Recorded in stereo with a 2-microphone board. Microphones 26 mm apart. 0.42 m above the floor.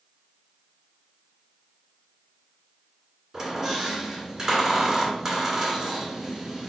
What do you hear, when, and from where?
3.3 s a squeak: 30° right (ahead or behind), 1.8 m